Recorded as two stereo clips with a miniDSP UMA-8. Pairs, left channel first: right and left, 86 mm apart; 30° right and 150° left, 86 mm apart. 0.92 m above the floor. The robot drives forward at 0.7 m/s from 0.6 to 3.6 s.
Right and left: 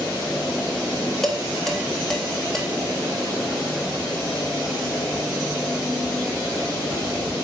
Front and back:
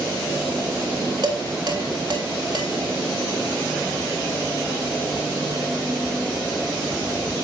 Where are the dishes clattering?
175° right, 2.5 m.